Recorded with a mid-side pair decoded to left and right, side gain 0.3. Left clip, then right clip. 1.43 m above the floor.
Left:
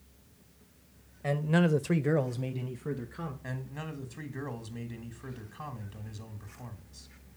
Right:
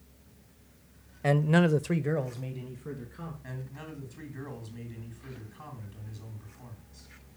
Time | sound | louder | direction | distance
1.2 | a man speaking | right 3 dB | 65° right | 0.7 m
3.4 | a man speaking | left 3 dB | 65° left | 1.9 m